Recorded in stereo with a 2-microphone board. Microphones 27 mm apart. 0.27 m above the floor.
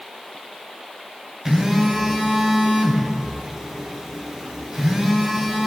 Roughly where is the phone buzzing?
Right.